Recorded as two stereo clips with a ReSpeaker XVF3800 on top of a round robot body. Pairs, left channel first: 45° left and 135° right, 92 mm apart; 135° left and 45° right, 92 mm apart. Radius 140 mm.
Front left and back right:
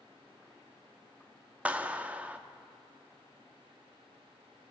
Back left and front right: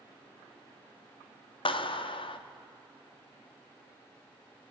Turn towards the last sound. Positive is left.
turn(degrees=150)